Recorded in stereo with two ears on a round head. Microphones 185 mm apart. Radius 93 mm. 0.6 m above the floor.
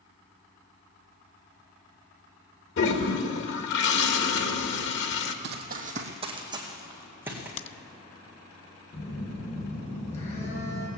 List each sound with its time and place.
2.8 s a toilet flushing: 60° left (ahead or behind), 1.3 m
5.4 s running footsteps: 55° right (ahead or behind), 1.5 m; by 7.5 s 10° right (ahead or behind), 3.5 m
7.6 s a crack: 30° left (ahead or behind), 0.5 m
8.9 s a phone buzzing: 30° left (ahead or behind), 3.5 m